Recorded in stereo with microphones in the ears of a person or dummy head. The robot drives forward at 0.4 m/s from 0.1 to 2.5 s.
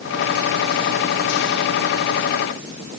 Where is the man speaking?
I don't hear a man speaking.